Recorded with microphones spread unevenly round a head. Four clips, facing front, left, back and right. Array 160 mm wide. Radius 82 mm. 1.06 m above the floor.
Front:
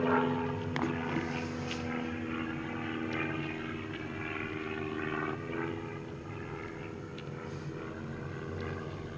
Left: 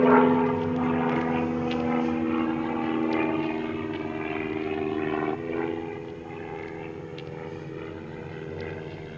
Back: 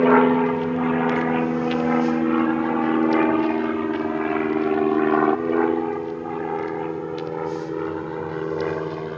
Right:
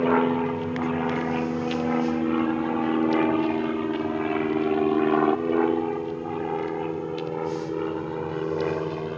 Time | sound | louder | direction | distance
0.0 | an aircraft | left 3 dB, back 14 dB | 165° left | ?